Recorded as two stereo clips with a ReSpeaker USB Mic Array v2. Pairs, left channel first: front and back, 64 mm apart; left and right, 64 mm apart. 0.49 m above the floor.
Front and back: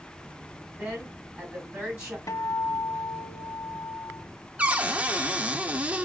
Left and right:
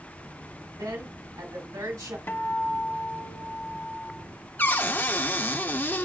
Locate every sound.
0.8 s a woman speaking: 105° right, 2.5 m
2.3 s a guitar: 30° left, 0.6 m
4.6 s a cupboard door: 125° left, 0.6 m